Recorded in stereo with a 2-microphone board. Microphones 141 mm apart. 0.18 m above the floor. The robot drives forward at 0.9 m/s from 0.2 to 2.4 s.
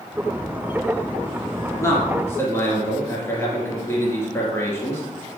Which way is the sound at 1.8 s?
20° left (ahead or behind).